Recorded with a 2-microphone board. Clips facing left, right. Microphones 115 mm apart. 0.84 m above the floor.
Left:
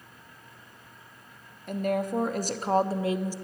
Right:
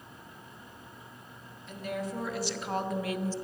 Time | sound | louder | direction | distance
1.7 | a woman speaking | left 8 dB | 55° left (ahead or behind) | 1.3 m